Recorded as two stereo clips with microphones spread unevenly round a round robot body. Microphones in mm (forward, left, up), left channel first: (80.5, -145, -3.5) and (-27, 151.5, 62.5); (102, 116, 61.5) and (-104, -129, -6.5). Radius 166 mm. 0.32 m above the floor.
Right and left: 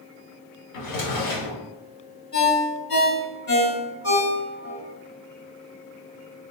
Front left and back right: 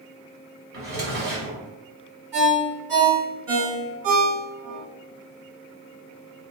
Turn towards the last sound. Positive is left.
turn(degrees=-125)